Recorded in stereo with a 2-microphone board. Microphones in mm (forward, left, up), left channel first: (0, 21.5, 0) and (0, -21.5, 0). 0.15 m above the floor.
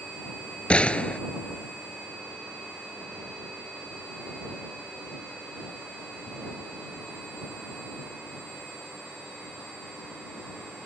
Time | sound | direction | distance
0.7 | a gunshot | 30° left (ahead or behind) | ?